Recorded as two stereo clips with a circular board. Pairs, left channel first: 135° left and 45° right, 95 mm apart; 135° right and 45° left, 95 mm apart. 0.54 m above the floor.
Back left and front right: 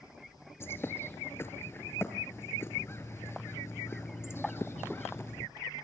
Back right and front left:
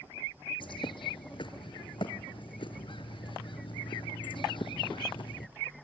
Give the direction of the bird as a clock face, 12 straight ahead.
5 o'clock.